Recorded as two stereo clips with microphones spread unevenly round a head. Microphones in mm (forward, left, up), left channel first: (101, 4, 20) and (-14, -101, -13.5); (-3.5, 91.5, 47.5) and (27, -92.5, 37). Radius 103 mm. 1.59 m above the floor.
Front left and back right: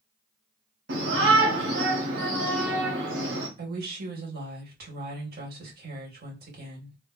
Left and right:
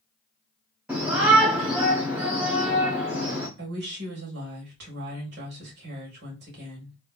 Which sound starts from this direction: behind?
A shout, at 0.9 s.